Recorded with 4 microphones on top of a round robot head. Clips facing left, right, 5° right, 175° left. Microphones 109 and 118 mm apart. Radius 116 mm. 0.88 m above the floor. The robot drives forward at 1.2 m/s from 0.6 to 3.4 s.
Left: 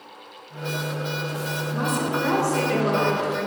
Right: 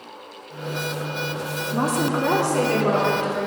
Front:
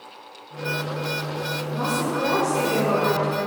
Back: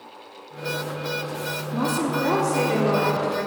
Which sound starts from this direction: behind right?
A woman speaking, at 1.7 s.